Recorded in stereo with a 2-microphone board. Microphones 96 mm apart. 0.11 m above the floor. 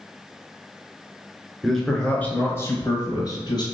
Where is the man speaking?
Centre (ahead or behind), 1.4 m; by 3.6 s 45° left (ahead or behind), 1.7 m.